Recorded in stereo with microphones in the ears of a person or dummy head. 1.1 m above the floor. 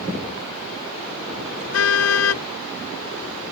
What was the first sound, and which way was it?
A car horn, 85° left.